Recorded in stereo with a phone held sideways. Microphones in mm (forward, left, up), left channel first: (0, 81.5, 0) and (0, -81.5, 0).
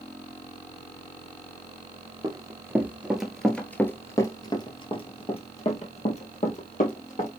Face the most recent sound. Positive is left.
turn(degrees=50)  # may be behind; listen again after turning